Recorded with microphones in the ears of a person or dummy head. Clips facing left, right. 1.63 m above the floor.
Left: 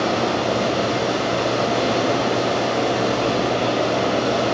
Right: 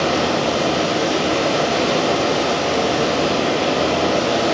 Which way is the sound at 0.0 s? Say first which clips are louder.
Right 2 dB; 60° right (ahead or behind).